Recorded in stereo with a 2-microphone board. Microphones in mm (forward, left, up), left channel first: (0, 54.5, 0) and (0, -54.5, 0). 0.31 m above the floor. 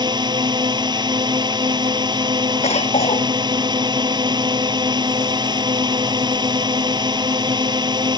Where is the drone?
40° right (ahead or behind).